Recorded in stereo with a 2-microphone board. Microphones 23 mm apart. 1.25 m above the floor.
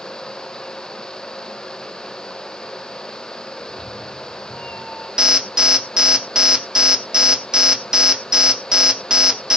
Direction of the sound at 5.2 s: 30° right (ahead or behind).